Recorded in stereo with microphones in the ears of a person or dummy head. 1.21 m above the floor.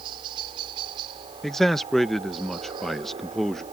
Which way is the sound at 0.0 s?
25° right (ahead or behind).